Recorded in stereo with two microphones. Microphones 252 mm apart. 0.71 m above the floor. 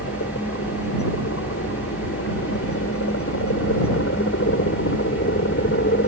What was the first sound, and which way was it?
A helicopter, 65° left (ahead or behind).